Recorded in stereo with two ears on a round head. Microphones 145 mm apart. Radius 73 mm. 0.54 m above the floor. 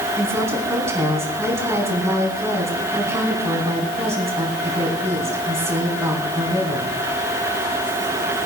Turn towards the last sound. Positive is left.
turn(degrees=-20)  # may be behind; listen again after turning